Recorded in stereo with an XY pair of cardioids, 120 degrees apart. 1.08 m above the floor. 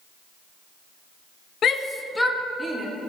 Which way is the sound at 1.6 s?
50° left.